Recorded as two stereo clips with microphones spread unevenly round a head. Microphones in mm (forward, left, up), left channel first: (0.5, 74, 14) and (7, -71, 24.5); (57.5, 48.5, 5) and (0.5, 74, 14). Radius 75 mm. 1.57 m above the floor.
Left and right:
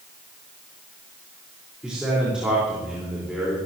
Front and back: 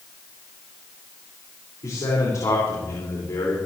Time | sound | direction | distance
1.8 | a man speaking | straight ahead | 5 m